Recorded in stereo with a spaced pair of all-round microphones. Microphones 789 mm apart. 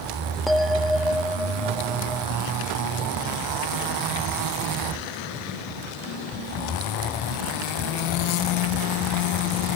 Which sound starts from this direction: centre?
A bell, at 0.5 s.